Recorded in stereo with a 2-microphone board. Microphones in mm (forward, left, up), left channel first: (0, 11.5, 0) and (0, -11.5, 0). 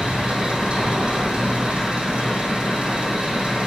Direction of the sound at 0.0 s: 55° right (ahead or behind).